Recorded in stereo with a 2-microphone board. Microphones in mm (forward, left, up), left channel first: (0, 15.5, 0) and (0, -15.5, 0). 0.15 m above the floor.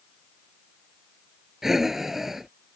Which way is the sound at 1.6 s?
15° right (ahead or behind).